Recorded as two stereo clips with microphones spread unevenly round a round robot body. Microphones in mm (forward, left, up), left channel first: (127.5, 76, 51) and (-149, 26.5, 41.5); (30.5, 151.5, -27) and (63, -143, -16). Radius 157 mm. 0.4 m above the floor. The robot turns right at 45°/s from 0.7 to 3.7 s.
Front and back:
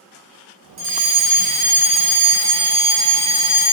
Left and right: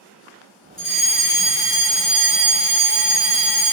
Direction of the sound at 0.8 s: Straight behind.